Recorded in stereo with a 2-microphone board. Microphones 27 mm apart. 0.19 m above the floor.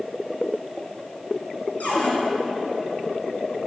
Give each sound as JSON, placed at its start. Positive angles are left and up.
{"t": 1.8, "sound": "a cupboard door", "side_deg": 65, "distance_m": 2.5}